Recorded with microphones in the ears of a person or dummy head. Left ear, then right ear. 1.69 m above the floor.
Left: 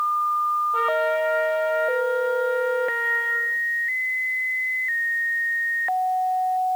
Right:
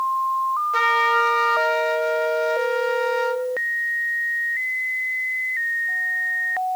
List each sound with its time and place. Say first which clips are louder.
0.7 s a trumpet: right 3 dB; 55° right (ahead or behind), 1.8 m